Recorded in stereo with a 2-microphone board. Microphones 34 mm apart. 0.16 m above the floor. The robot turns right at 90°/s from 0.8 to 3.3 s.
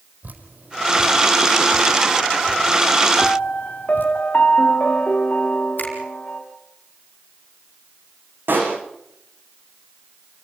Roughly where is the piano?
Left.